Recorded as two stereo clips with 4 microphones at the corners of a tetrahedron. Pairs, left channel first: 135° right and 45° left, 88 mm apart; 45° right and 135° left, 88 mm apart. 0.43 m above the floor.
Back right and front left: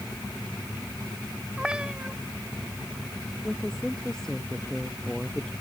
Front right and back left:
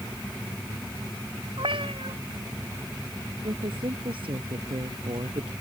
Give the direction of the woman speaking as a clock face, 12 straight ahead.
7 o'clock.